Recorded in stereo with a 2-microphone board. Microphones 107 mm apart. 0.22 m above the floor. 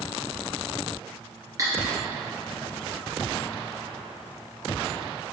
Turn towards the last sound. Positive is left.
turn(degrees=-35)  # may be behind; listen again after turning